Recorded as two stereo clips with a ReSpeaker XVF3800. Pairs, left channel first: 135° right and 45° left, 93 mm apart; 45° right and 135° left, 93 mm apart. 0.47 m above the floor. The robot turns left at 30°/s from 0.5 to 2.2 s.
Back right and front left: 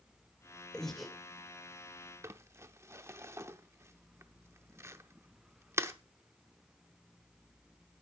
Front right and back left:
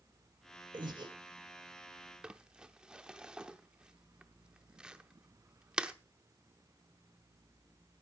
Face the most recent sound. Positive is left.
turn(degrees=60)